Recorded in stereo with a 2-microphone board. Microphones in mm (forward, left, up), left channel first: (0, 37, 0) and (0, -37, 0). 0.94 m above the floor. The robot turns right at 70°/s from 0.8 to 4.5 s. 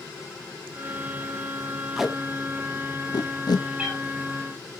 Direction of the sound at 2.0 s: 5° right (ahead or behind).